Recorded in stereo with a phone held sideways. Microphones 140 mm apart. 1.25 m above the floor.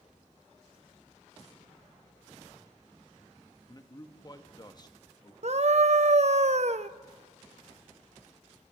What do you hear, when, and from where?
3.7 s a man speaking: 30° left (ahead or behind), 1.7 m
5.4 s a scream: 55° right (ahead or behind), 0.7 m